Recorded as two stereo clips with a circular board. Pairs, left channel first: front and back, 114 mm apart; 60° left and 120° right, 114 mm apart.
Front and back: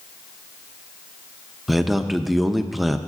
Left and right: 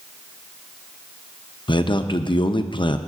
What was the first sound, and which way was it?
A man speaking, 90° left.